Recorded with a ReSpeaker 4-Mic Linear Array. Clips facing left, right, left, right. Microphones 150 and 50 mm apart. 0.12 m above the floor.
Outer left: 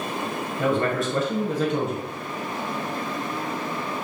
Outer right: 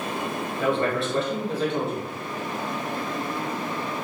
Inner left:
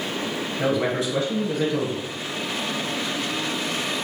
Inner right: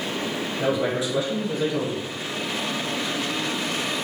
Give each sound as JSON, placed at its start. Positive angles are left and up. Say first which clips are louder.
{"t": 0.6, "sound": "a man speaking", "louder": "outer left 1 dB, inner left 1 dB", "side_deg": 45, "distance_m": 1.6}